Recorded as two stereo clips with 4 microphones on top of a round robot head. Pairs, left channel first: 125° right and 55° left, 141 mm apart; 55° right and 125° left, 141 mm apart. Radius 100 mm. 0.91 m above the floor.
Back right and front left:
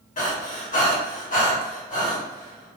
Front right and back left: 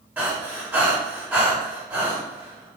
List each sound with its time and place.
0.2 s breathing: 155° right, 1.6 m